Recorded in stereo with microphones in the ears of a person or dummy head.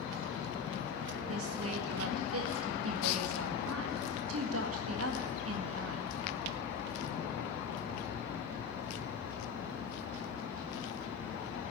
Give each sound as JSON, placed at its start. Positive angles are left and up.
{"t": 1.3, "sound": "a woman speaking", "side_deg": -80, "distance_m": 1.7}